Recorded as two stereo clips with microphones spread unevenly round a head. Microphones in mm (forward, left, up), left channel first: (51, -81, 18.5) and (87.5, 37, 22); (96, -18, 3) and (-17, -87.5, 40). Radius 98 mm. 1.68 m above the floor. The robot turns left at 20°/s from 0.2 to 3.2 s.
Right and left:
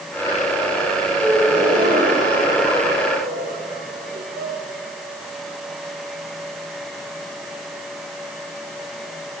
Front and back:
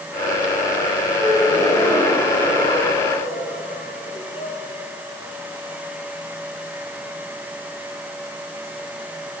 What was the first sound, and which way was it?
A gasp, 130° left.